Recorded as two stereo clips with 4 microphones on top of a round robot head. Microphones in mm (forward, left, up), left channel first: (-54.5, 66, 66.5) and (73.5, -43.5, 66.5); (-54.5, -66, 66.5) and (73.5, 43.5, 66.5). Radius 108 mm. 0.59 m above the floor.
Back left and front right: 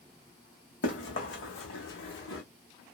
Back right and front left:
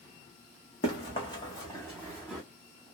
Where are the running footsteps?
165° left, 1.6 m; by 2.4 s 130° left, 1.7 m.